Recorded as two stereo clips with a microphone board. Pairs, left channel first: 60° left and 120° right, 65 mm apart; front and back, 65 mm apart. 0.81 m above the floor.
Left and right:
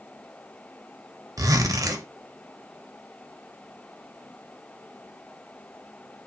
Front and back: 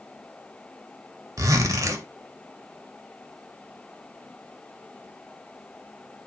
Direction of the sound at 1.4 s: 150° right.